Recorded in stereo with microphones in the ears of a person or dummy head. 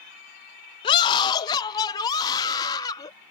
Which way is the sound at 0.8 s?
35° left (ahead or behind).